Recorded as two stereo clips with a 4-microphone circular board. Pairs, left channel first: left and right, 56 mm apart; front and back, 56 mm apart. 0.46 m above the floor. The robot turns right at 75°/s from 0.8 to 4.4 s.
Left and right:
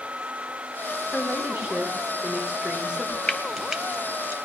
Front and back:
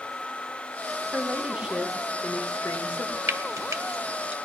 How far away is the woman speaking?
About 1.2 m.